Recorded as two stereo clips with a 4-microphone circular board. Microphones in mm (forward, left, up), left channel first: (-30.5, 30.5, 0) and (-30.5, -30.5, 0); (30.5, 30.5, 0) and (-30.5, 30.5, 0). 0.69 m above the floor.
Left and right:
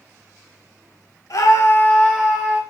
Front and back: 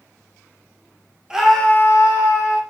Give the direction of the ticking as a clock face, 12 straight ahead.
I don't hear ticking.